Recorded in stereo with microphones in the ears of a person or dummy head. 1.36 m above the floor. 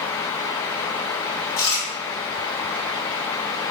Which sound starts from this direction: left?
Chewing, at 1.6 s.